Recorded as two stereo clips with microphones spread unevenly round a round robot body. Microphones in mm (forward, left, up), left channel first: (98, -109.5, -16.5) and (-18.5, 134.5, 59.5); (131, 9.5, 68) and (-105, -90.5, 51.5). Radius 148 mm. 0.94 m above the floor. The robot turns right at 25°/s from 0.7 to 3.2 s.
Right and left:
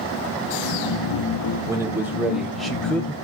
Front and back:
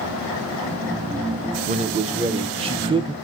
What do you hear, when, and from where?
1.7 s a man speaking: 145° right, 0.5 m; by 3.1 s 110° right, 0.5 m